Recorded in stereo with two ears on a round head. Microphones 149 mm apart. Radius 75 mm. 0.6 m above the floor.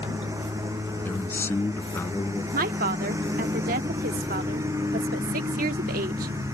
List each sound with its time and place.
0.0 s a lawn mower: 15° right (ahead or behind)
1.1 s a man speaking: 15° left (ahead or behind)
2.5 s a woman speaking: 55° right (ahead or behind)